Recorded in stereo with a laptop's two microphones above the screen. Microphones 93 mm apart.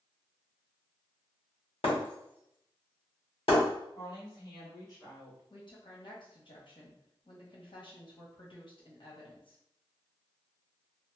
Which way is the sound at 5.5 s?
55° left (ahead or behind).